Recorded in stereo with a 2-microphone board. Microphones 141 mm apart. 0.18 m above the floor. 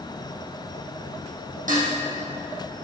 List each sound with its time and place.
1.7 s dishes clattering: 75° right (ahead or behind), 4.5 m